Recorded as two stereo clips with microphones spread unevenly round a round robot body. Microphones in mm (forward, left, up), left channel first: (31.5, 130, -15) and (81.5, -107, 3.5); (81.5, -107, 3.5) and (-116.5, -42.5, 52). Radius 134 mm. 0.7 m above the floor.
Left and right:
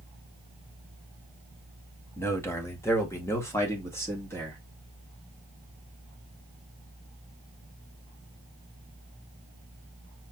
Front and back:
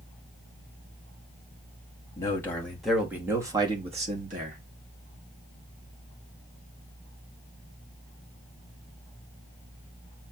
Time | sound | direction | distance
2.2 | a man speaking | 30° left | 1.3 m